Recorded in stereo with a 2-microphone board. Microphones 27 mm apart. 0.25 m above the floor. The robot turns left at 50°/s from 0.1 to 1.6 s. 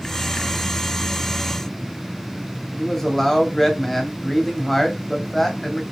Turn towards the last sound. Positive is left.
turn(degrees=15)  # may be behind; listen again after turning